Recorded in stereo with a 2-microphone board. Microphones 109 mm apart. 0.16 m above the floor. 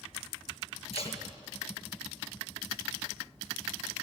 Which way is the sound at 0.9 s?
60° left (ahead or behind).